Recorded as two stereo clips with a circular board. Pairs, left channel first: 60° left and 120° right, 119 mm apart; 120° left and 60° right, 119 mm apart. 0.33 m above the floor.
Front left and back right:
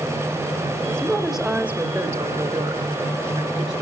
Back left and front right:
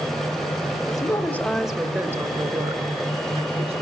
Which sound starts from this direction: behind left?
A woman speaking, at 0.9 s.